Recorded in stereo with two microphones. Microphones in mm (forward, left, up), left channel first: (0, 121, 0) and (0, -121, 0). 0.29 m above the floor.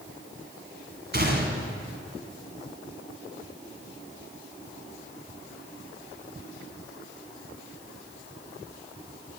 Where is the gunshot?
45° right (ahead or behind), 1.6 m.